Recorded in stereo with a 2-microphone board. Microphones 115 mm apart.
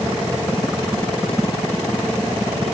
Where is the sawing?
I don't hear sawing.